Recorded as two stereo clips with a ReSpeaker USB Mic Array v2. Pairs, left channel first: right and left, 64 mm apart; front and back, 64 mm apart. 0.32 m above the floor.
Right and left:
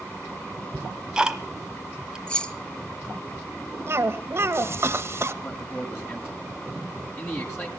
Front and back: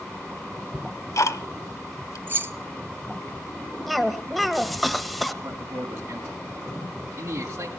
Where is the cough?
90° left, 1.2 m.